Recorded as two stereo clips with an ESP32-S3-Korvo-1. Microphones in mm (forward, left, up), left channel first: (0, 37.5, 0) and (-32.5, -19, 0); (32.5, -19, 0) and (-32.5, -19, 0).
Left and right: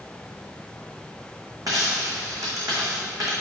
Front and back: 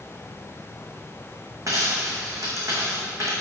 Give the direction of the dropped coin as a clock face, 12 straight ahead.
5 o'clock.